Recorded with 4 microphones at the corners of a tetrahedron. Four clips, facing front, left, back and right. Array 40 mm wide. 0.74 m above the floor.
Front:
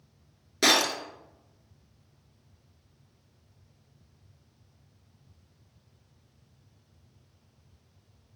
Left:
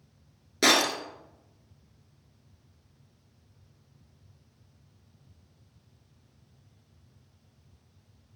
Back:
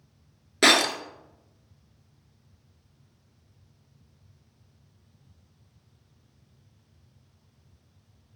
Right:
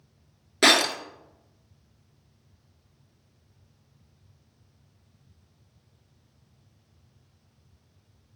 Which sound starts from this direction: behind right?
Breaking glass, at 0.6 s.